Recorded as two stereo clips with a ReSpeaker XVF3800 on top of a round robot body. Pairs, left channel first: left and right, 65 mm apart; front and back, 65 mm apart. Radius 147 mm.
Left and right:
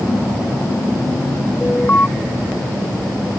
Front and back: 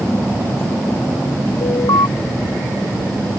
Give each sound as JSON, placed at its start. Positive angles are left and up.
{"t": 1.6, "sound": "an alarm", "azimuth_deg": 25}